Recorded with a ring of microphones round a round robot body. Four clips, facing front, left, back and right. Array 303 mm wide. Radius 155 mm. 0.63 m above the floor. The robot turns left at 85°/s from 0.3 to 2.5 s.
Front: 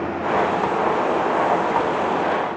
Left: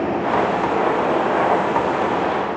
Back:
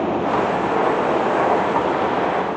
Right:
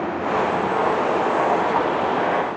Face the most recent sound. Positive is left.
No sound to turn to.